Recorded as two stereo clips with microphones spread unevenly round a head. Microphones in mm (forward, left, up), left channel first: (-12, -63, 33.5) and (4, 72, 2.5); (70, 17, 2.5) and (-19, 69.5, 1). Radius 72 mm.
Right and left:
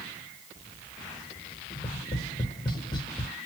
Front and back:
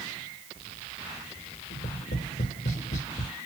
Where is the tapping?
35° right, 1.0 m.